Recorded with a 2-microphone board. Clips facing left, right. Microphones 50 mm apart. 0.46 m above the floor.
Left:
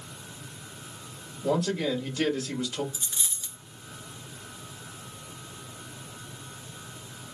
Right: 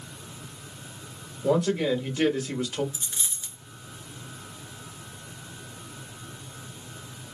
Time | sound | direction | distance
1.4 | a man speaking | 20° right (ahead or behind) | 1.3 m
2.9 | a dropped coin | 15° right (ahead or behind) | 1.0 m